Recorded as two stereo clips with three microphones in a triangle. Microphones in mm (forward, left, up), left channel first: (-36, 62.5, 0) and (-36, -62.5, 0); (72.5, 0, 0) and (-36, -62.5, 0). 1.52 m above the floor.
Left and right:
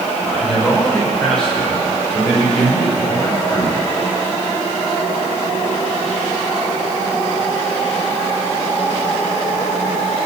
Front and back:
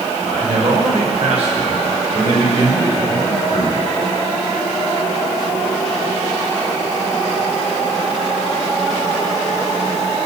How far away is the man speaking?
About 7 m.